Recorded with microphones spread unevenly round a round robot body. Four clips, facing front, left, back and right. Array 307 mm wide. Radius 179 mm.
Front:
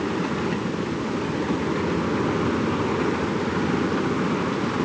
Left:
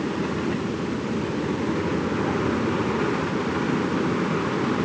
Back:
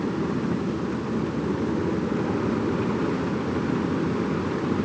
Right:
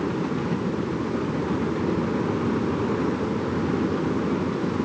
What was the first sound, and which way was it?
Only background noise.